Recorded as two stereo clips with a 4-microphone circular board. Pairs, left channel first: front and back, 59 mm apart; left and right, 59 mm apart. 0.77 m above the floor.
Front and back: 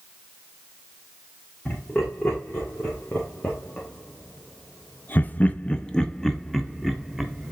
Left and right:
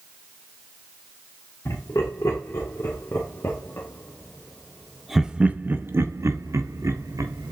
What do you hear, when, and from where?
1.6 s laughter: 70° left, 2.5 m; by 7.5 s 95° right, 1.6 m